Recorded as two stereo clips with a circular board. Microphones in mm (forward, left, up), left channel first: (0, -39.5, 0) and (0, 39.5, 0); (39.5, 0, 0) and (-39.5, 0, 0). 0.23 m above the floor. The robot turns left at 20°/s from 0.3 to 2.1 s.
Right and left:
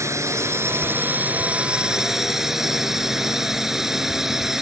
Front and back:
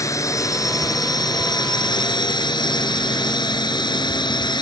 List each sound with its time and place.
0.0 s a drone: 40° left; by 4.6 s 5° left